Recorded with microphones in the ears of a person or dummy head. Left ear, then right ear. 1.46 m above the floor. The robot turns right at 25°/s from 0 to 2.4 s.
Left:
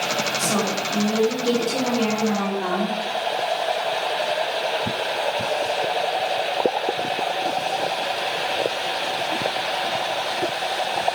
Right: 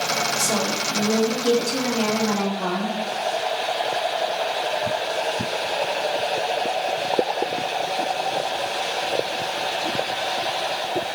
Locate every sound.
0.4 s a woman speaking: 100° right, 1.8 m; by 3.0 s 50° right, 1.8 m